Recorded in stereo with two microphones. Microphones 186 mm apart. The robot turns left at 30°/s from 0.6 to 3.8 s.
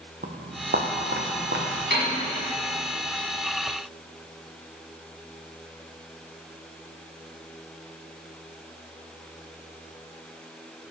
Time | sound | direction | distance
0.2 | footsteps | 55° right (ahead or behind) | 1.3 m
1.9 | a piano | 75° right (ahead or behind) | 5.5 m